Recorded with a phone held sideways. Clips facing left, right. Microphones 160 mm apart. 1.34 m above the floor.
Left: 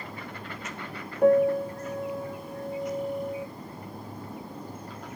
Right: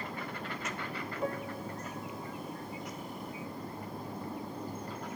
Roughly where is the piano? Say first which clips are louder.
Left 19 dB; left.